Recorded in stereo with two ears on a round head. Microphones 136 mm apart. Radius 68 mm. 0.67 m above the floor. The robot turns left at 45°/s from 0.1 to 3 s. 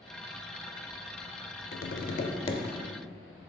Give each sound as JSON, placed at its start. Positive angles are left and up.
{"t": 1.7, "sound": "tapping", "azimuth_deg": 70, "distance_m": 0.8}